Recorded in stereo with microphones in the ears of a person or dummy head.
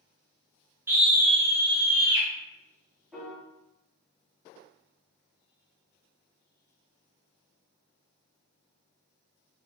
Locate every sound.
0.9 s a scream: 10° right (ahead or behind), 0.6 m
3.1 s a piano: centre (ahead or behind), 0.5 m